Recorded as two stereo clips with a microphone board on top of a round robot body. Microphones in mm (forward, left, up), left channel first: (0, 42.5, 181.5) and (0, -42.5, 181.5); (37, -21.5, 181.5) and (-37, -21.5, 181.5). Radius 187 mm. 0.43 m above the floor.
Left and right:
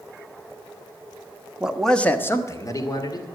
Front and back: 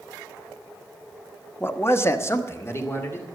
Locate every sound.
1.6 s a man speaking: 25° right, 1.4 m; by 3.2 s 55° left, 3 m